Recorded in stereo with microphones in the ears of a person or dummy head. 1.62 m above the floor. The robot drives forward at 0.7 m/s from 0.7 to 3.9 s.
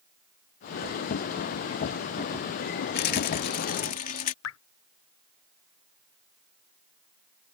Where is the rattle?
55° left (ahead or behind); by 4.3 s 45° left (ahead or behind).